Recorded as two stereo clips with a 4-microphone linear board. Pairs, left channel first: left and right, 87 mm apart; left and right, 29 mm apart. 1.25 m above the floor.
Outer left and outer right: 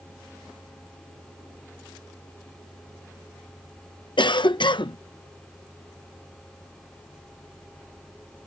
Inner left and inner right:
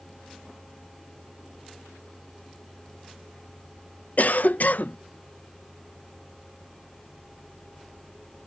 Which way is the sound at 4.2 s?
65° left (ahead or behind).